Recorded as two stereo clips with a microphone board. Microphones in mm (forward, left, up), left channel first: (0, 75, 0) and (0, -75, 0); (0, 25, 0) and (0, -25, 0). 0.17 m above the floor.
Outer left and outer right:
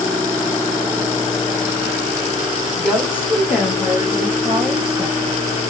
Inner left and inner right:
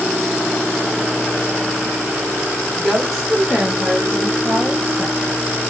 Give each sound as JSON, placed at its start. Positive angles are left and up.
{"t": 2.8, "sound": "a woman speaking", "side_deg": 0, "distance_m": 1.2}